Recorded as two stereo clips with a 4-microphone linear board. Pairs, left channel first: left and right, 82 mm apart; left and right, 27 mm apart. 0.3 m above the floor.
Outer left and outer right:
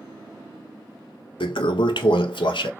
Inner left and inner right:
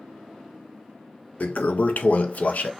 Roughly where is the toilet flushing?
Left.